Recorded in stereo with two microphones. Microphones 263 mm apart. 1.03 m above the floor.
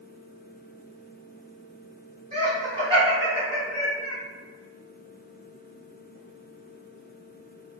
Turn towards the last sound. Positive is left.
turn(degrees=25)  # may be behind; listen again after turning